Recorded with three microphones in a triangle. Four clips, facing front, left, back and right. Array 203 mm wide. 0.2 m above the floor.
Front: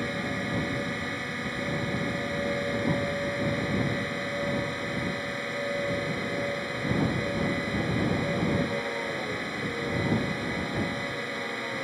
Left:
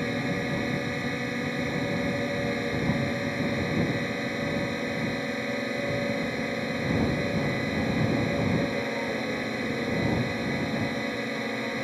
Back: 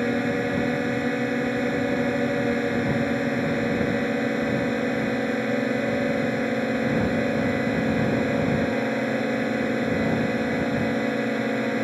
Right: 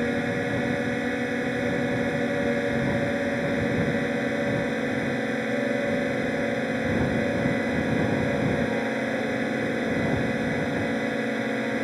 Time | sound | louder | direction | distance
0.0 | a drone | right 3 dB, back 8 dB | 155° right | ?